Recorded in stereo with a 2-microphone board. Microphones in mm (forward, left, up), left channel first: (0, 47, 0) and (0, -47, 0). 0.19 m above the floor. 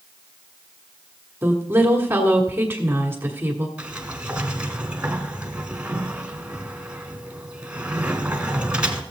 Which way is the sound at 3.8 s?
15° right (ahead or behind).